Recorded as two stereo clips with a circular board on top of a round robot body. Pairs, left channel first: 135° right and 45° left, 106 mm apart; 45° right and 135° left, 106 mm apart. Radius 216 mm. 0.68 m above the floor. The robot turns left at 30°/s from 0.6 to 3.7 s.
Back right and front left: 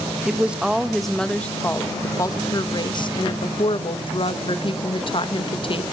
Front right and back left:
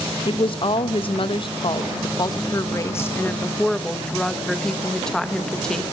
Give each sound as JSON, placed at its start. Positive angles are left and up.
{"t": 0.2, "sound": "a woman speaking", "azimuth_deg": -35, "distance_m": 1.3}